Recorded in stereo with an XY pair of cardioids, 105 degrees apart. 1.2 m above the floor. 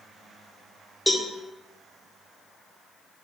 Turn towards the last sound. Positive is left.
turn(degrees=0)